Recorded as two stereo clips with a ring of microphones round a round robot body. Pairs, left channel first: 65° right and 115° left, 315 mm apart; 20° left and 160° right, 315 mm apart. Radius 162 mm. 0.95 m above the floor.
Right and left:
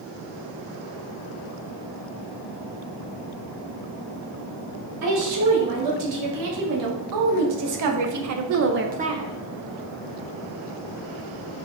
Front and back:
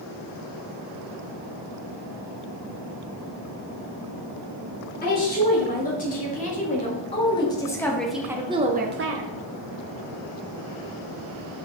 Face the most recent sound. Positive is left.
turn(degrees=-170)